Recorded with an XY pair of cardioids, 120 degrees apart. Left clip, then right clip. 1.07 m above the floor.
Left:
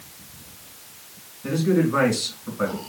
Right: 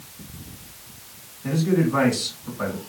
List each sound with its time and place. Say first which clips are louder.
1.4 s a man speaking: left 1 dB; 15° left, 2.5 m